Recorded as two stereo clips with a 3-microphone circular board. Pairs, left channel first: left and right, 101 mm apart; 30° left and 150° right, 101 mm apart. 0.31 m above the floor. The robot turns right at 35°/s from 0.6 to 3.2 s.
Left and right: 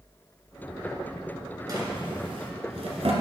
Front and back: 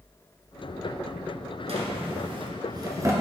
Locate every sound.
1.7 s a drawer: 140° right, 1.7 m; by 3.1 s 90° right, 1.7 m